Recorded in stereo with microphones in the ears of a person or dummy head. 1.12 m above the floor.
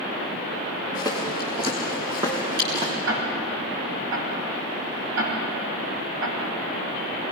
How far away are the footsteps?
About 5 m.